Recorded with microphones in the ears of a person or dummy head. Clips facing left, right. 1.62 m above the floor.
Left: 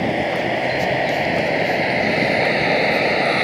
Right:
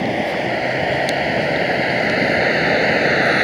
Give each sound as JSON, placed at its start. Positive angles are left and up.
{"t": 0.0, "sound": "a vehicle", "side_deg": 0}